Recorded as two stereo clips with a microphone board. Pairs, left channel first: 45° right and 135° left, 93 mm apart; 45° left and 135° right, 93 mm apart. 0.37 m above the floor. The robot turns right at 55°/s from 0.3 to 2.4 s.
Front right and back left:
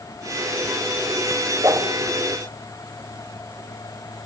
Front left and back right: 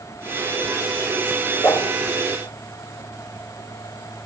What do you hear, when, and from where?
1.6 s a whoosh: 90° left, 1.8 m; by 1.9 s 110° left, 1.8 m